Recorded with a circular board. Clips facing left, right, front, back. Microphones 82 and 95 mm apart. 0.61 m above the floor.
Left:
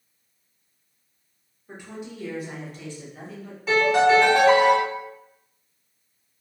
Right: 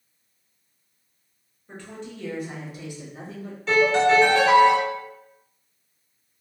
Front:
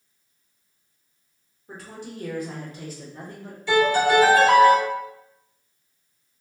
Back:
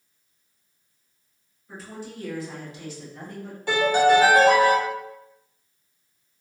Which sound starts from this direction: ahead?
A woman speaking, at 1.7 s.